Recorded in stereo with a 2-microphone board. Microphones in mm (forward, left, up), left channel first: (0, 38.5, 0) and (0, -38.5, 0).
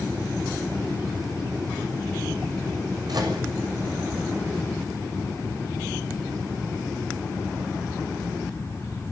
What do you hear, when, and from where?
3.1 s a microwave: 60° right (ahead or behind), 6.5 m